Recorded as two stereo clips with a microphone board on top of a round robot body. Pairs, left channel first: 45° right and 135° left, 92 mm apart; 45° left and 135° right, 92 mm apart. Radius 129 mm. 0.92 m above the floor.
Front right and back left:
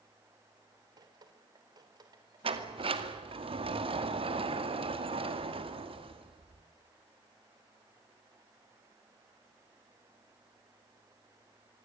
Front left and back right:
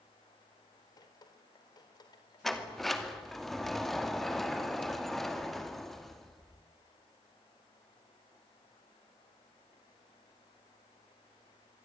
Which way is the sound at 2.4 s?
135° left.